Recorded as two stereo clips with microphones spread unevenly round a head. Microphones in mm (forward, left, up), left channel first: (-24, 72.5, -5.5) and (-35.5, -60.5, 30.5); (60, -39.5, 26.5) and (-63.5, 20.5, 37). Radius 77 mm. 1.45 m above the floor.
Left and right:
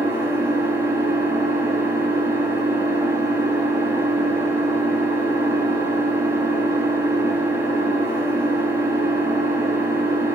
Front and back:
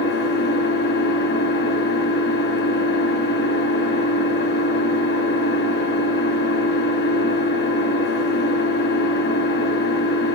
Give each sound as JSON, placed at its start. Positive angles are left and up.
{"t": 0.0, "sound": "an engine running", "azimuth_deg": -25, "distance_m": 4.0}